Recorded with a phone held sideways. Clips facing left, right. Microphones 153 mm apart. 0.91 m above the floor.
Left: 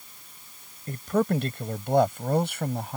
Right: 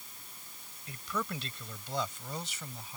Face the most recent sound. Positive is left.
turn(degrees=65)  # may be behind; listen again after turning